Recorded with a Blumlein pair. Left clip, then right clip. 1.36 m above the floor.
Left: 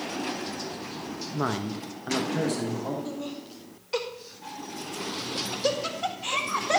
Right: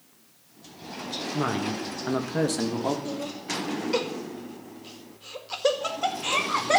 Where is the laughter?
10° right, 1.9 m.